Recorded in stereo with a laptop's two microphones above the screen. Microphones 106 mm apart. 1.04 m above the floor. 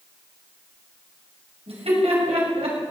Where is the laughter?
75° right (ahead or behind), 7 m; by 2.9 s 85° right, 7.5 m.